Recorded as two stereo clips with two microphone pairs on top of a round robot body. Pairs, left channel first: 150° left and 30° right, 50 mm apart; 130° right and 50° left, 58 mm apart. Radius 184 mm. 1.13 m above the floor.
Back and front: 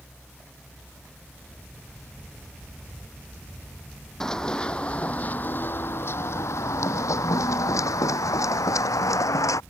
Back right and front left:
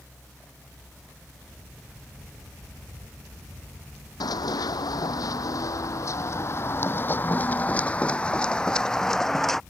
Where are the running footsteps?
130° right; by 9.6 s 145° left.